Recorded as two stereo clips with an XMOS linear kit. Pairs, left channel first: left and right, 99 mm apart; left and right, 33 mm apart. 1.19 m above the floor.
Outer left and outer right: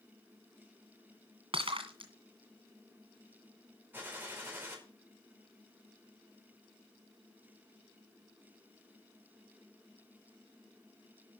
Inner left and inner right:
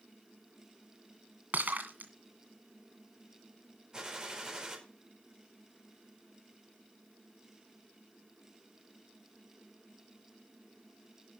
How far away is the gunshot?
About 4.5 m.